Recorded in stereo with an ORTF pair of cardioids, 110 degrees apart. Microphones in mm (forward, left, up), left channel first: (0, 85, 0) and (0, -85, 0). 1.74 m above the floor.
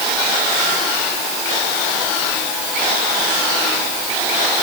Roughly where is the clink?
No clink in this recording.